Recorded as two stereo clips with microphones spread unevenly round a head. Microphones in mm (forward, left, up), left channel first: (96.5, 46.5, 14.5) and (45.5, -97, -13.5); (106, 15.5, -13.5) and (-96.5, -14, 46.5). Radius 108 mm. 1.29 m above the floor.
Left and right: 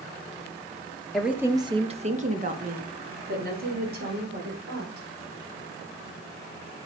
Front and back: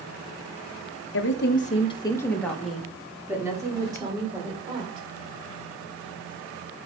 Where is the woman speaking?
20° right, 1.3 m; by 5.0 s 105° right, 5.5 m.